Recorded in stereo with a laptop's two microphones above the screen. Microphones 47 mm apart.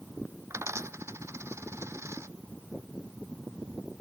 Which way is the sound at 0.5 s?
75° right (ahead or behind).